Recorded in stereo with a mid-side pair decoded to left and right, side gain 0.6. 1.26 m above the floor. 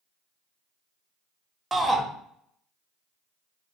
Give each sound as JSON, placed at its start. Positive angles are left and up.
{"t": 1.7, "sound": "a shout", "azimuth_deg": -15, "distance_m": 0.7}